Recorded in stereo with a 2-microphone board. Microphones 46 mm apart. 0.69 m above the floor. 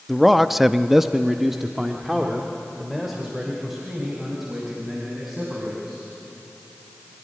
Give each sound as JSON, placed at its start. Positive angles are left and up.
{"t": 0.1, "sound": "a man speaking", "side_deg": 0, "distance_m": 0.7}